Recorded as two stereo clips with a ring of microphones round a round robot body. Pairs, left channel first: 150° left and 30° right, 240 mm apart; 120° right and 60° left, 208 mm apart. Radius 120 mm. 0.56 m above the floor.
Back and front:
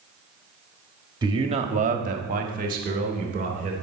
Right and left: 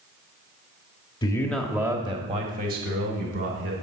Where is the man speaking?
80° right, 1.0 m; by 3.7 s 25° left, 2.5 m.